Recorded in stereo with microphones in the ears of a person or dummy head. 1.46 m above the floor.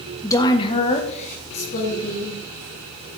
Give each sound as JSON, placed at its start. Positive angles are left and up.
{"t": 0.2, "sound": "a woman speaking", "side_deg": 10, "distance_m": 0.9}